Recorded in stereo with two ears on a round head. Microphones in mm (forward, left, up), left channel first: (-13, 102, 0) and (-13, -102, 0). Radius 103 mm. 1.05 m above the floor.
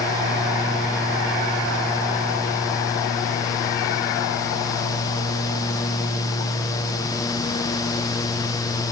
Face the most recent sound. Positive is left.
No sound to turn to.